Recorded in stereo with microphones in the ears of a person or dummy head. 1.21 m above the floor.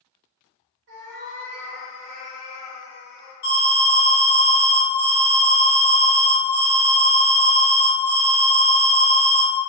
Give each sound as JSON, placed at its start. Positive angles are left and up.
{"t": 0.9, "sound": "a cat meowing", "side_deg": -50, "distance_m": 0.9}
{"t": 3.4, "sound": "an alarm", "side_deg": 55, "distance_m": 1.8}